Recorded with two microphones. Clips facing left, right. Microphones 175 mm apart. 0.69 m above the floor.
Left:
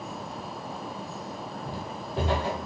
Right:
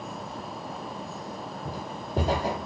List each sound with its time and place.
1.6 s footsteps: 40° right (ahead or behind), 1.6 m